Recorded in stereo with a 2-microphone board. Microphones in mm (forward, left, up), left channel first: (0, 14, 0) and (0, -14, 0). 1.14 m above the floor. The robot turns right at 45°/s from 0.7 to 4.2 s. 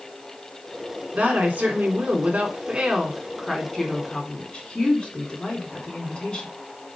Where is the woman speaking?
105° right, 3.5 m; by 6.5 s 30° left, 3.5 m.